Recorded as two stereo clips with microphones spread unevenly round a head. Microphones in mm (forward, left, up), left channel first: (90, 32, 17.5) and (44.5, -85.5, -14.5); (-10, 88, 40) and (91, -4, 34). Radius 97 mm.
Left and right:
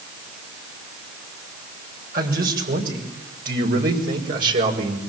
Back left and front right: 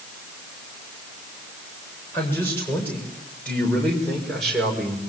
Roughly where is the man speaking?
Behind right.